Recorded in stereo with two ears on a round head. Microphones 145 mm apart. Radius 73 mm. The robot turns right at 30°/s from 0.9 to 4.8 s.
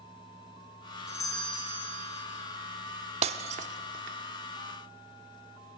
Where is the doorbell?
20° left, 3 m; by 2.2 s 55° left, 3 m.